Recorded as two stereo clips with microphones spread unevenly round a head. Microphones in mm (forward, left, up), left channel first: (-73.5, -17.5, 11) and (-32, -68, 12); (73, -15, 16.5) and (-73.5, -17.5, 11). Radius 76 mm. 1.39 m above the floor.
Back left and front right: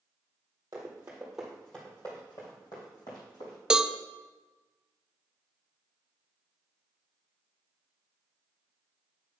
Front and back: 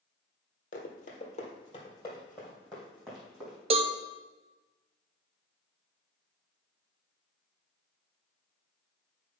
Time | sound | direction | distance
0.7 | running footsteps | straight ahead | 2 m
3.7 | a cowbell | 130° right | 0.5 m